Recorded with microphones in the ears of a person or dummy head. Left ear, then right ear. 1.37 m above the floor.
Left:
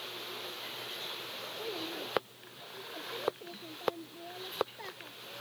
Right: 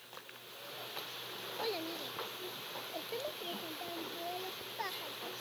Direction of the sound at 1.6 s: 60° right (ahead or behind).